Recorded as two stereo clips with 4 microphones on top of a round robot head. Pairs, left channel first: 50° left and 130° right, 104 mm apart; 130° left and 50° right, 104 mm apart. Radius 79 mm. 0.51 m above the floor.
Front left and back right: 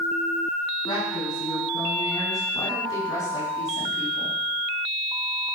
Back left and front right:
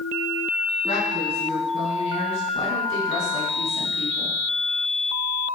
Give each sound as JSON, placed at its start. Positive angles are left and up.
{"t": 0.8, "sound": "a woman speaking", "azimuth_deg": 100, "distance_m": 5.5}